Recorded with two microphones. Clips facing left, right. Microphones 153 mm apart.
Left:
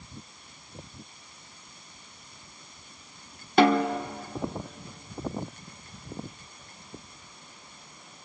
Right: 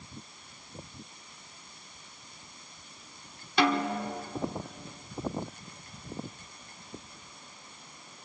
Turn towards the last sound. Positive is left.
turn(degrees=50)  # may be behind; listen again after turning